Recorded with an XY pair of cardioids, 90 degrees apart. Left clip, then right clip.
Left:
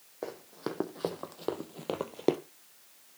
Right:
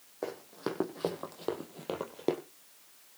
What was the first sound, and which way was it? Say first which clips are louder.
Running footsteps: right 1 dB; 10° right.